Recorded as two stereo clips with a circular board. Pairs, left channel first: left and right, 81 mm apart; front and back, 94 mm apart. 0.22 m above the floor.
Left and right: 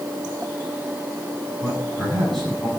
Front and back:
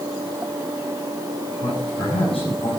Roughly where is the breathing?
No breathing in this recording.